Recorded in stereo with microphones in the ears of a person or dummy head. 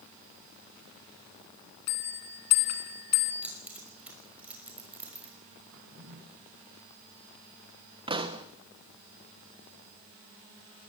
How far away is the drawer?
About 5.5 m.